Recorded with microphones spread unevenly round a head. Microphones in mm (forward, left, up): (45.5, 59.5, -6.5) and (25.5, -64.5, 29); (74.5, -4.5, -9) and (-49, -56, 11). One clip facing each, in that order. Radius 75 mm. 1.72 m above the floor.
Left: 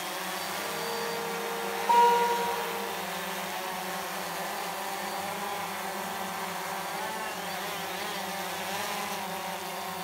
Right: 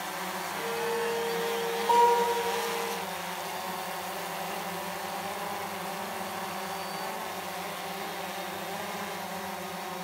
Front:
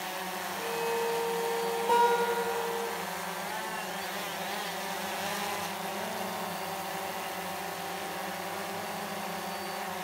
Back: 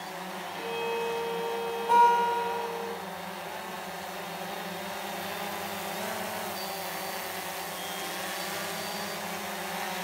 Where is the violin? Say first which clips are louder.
Right 5 dB, even; 75° right, 1.5 m.